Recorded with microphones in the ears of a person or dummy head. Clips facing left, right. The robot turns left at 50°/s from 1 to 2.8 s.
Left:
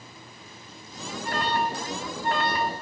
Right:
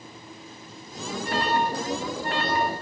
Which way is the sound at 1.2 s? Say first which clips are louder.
Right 2 dB; 35° left (ahead or behind).